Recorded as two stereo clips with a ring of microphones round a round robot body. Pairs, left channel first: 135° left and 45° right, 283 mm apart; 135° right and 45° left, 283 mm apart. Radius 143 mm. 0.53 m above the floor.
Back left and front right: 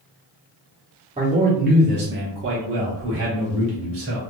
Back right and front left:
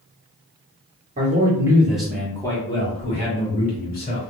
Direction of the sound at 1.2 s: 10° left.